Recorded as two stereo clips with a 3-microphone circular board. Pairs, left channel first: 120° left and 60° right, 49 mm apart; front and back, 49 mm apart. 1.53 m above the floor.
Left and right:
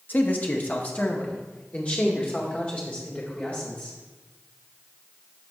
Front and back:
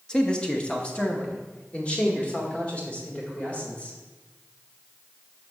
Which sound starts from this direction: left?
A man speaking, at 0.1 s.